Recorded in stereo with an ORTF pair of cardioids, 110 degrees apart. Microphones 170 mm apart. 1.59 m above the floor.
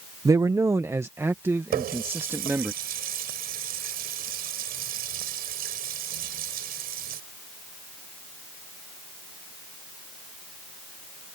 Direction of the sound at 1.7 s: 65° right.